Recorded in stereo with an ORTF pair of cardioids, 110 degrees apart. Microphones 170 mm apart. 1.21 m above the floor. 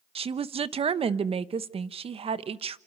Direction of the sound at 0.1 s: 35° right.